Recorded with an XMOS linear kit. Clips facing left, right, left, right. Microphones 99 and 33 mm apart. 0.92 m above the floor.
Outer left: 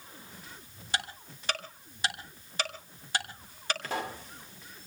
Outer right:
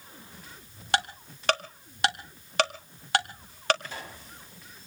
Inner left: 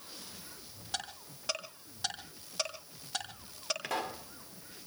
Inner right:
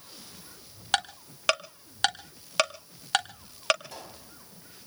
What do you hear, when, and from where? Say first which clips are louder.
0.9 s ticking: outer right 8 dB, inner right 12 dB; 70° right (ahead or behind), 1.8 m
3.8 s a pop: outer left 7 dB, inner left 8 dB; 80° left, 1.9 m